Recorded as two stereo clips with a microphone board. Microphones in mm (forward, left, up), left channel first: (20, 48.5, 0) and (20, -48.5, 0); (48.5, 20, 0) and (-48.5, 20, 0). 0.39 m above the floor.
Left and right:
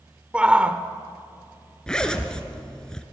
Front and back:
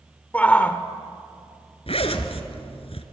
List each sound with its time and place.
0.3 s a shout: 35° right, 0.9 m
1.9 s a zipper: 10° left, 1.8 m